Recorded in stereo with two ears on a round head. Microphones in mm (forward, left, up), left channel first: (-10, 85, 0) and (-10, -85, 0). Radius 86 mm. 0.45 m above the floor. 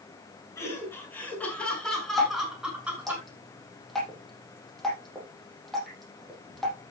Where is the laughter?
15° left (ahead or behind), 7 m; by 3.2 s 10° right (ahead or behind), 6.5 m.